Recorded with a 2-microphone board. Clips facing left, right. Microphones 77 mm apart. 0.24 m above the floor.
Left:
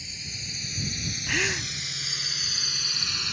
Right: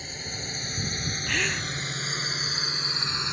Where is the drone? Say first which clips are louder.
Right 5 dB; 50° right (ahead or behind); by 3.3 s 25° right (ahead or behind).